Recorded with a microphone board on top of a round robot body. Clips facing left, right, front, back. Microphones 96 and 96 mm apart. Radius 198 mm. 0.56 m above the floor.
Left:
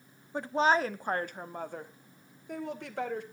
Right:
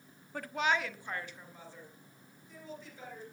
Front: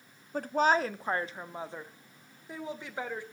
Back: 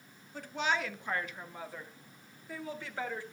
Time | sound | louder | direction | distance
0.3 | a woman speaking | left 6 dB, front 7 dB | 25° left | 1.0 m